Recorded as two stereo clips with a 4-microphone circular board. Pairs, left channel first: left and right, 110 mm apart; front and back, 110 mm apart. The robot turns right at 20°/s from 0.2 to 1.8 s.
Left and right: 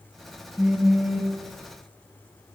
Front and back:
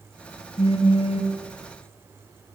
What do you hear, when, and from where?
0.6 s a phone buzzing: 10° right, 1.4 m; by 1.4 s 5° left, 1.4 m